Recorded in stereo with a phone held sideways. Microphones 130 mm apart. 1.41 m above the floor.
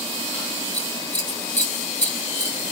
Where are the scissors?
70° left (ahead or behind), 2.5 m.